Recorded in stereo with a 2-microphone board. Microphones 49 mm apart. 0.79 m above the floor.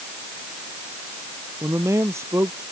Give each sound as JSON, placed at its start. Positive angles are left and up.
{"t": 1.6, "sound": "a man speaking", "side_deg": -80}